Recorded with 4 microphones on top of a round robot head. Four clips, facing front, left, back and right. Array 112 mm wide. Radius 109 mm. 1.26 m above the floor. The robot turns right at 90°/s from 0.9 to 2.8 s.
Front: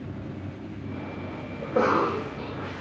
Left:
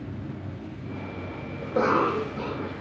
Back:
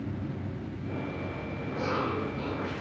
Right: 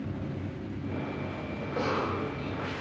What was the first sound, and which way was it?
A cough, 20° left.